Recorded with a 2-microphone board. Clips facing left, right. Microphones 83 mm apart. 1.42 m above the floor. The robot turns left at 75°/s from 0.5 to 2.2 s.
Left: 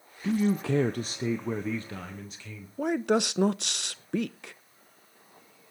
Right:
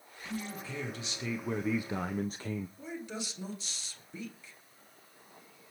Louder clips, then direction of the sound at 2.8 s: Left 15 dB; 65° left (ahead or behind).